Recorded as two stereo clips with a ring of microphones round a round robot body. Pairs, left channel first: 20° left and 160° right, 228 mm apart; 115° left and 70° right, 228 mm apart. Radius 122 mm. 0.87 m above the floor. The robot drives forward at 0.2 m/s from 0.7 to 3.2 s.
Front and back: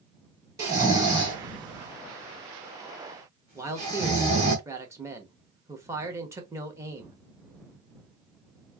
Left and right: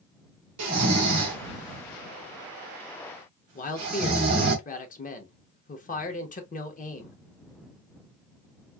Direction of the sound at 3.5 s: 130° left.